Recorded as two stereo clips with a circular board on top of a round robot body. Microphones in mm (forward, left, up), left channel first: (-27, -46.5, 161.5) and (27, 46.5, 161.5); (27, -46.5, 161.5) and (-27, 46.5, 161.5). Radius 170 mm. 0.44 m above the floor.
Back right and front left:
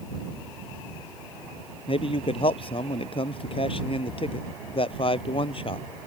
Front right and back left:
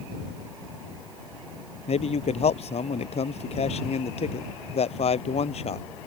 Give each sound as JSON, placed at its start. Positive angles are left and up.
{"t": 1.9, "sound": "a man speaking", "azimuth_deg": -85}